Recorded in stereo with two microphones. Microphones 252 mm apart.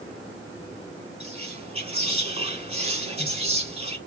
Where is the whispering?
25° right (ahead or behind), 1.8 m.